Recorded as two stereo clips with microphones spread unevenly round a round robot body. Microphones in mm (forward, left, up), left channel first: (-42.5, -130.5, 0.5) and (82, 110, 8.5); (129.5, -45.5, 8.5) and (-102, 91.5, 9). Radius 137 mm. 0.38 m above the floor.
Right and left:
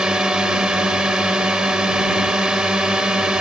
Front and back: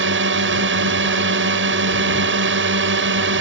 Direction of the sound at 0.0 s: 150° left.